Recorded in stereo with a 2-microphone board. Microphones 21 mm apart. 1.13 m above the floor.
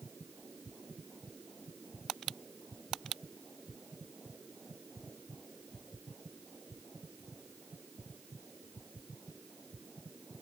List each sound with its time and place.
Only background noise.